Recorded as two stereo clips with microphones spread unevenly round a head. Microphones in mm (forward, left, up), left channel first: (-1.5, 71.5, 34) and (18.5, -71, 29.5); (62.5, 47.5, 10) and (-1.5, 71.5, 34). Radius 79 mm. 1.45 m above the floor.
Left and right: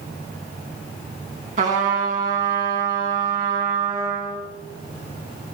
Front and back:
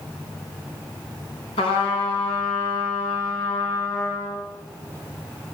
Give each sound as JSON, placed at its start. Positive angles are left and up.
{"t": 1.6, "sound": "a trumpet", "azimuth_deg": -45, "distance_m": 3.5}